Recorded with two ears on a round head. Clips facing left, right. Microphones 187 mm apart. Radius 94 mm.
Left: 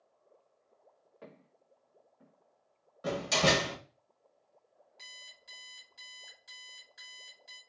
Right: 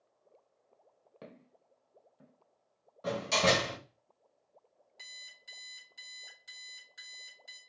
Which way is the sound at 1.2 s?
55° right (ahead or behind).